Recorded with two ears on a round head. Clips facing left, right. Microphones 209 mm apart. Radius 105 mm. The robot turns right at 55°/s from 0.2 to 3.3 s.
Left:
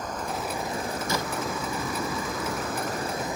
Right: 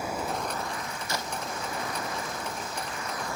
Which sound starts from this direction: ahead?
Running water, at 0.0 s.